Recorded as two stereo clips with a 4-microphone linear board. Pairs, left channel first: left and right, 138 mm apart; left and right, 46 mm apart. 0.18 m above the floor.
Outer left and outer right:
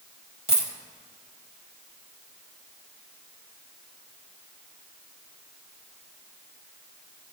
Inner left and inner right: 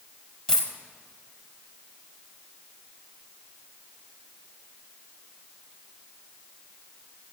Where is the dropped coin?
20° left (ahead or behind), 1.8 m.